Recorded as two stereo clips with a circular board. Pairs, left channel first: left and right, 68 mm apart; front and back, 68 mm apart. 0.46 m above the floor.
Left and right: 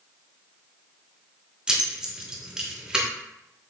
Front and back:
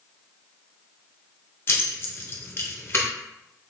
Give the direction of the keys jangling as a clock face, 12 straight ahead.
1 o'clock.